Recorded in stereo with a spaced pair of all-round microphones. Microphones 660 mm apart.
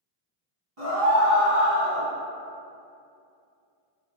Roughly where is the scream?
Right.